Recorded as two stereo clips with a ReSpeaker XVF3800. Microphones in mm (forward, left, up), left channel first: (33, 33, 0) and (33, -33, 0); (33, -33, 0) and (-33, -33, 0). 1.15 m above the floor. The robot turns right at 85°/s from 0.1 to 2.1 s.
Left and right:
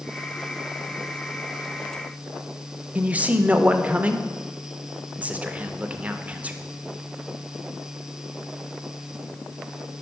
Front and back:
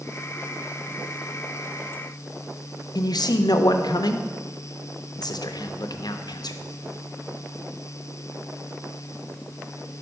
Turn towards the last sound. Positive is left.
turn(degrees=-20)